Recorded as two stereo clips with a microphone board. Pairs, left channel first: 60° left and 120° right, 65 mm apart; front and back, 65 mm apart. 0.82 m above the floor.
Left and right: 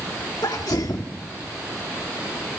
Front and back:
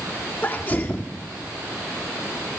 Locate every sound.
0.4 s a sneeze: 60° left, 1.4 m